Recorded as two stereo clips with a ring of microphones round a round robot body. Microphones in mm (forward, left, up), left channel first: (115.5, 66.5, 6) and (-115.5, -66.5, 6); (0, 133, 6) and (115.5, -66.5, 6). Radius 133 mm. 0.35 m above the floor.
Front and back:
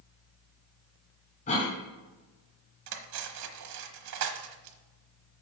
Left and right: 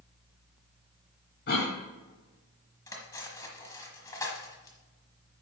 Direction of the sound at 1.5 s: 90° left.